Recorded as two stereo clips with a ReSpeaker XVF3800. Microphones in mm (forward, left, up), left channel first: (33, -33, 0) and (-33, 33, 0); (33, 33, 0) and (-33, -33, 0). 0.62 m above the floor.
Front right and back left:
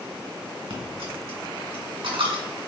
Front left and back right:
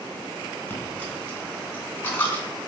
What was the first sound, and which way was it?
A dropped coin, 115° left.